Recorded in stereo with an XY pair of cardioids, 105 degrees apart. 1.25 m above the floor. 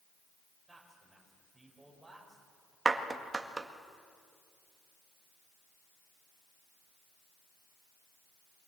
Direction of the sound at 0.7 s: Straight ahead.